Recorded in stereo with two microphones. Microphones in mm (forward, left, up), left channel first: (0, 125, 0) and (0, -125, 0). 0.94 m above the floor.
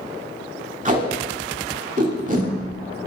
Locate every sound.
0.8 s tape being pulled: 30° right (ahead or behind), 2 m